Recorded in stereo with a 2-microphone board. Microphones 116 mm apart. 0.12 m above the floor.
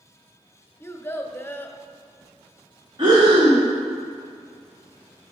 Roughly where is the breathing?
Right.